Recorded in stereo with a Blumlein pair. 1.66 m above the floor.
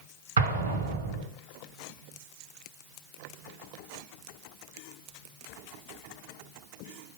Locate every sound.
0.4 s an explosion: 70° right, 1.6 m